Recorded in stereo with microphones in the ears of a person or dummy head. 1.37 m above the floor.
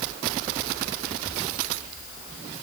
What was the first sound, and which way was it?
Only background noise.